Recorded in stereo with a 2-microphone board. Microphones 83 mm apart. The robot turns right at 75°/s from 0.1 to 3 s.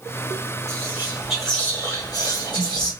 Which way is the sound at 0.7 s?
50° right.